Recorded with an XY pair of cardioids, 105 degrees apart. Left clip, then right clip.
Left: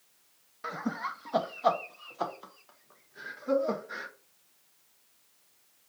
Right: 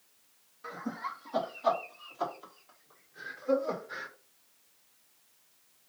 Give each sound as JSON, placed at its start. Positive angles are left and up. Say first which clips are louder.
{"t": 0.6, "sound": "laughter", "louder": "left 3 dB", "azimuth_deg": 60, "distance_m": 0.8}